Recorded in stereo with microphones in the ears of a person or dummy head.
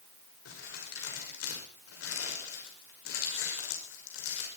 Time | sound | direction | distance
0.5 | crumpling | 80° left | 5.5 m